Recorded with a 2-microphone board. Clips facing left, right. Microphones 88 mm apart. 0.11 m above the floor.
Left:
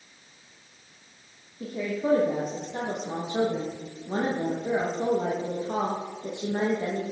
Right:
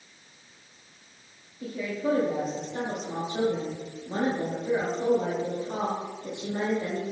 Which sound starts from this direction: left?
A woman speaking, at 1.6 s.